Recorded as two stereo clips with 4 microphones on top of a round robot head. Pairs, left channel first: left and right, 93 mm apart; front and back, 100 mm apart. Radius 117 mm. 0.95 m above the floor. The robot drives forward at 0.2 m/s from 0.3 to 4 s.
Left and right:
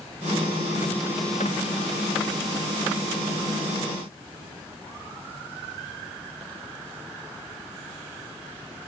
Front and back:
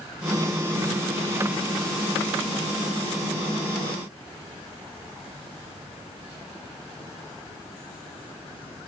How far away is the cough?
No cough in this recording.